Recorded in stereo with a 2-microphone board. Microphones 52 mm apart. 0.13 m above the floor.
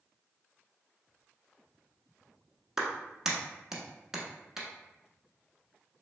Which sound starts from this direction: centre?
A clap, at 2.8 s.